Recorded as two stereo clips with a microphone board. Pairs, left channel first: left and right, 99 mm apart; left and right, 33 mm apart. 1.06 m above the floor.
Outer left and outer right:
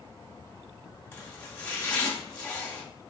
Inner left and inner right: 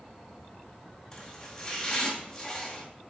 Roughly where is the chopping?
Left.